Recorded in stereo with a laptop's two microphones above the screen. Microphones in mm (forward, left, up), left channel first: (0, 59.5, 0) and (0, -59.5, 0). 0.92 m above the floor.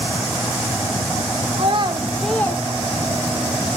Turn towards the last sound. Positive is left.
turn(degrees=65)  # may be behind; listen again after turning